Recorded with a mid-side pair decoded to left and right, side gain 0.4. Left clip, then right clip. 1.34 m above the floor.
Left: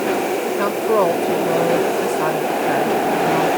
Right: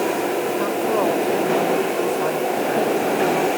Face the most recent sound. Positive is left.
turn(degrees=45)